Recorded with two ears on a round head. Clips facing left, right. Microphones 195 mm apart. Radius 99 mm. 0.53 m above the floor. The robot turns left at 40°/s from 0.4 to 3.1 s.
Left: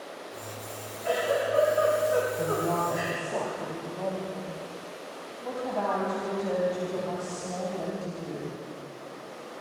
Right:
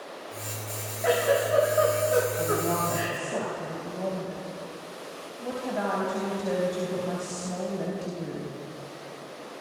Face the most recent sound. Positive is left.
turn(degrees=-15)  # may be behind; listen again after turning